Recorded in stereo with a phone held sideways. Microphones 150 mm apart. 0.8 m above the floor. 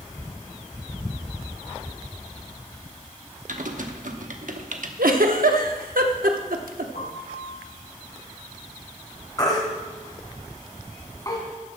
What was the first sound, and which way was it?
Typing on a keyboard, 65° right (ahead or behind).